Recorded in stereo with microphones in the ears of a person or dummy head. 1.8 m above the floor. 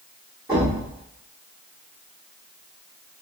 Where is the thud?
10° right (ahead or behind), 1.2 m.